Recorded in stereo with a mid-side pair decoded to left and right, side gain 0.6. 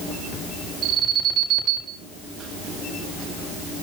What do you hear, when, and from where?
0.8 s an alarm: 50° right, 6 m